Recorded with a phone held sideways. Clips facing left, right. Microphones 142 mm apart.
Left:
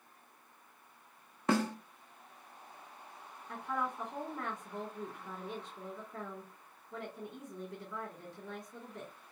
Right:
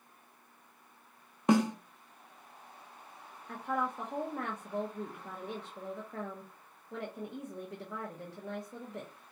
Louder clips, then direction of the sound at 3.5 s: Right 3 dB; 75° right (ahead or behind).